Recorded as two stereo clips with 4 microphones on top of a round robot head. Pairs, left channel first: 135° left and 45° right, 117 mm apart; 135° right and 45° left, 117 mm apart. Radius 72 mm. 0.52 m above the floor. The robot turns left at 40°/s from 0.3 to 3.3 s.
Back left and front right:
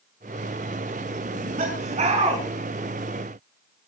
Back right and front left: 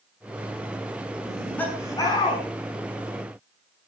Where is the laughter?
45° right, 6 m; by 2.4 s 90° right, 6 m.